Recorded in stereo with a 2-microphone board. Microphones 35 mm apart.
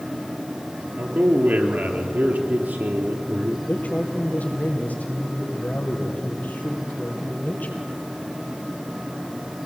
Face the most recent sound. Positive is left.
turn(degrees=55)  # may be behind; listen again after turning